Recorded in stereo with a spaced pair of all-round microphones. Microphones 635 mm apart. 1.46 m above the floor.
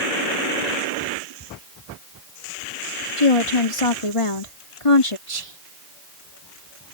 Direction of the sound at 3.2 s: 50° left (ahead or behind).